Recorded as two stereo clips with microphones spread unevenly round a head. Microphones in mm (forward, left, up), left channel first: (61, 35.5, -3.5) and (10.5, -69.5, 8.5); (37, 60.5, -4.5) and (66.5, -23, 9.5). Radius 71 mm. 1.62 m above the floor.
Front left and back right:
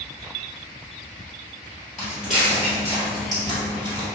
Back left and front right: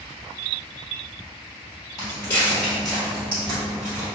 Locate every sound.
2.0 s footsteps: 160° left, 1.9 m; by 4.0 s 90° right, 2.5 m